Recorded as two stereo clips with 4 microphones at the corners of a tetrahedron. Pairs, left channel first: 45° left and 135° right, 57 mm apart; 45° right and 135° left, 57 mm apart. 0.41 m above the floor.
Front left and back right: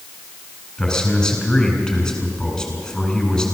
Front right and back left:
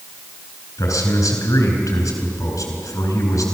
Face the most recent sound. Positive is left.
turn(degrees=-35)